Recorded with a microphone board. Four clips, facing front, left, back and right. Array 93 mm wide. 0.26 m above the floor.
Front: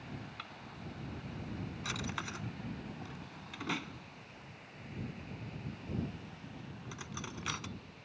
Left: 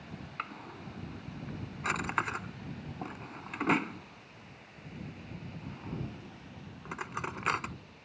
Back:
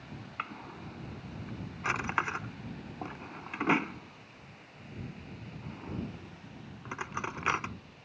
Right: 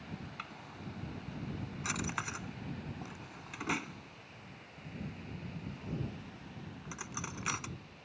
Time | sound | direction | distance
0.4 | a drawer | 145° left | ?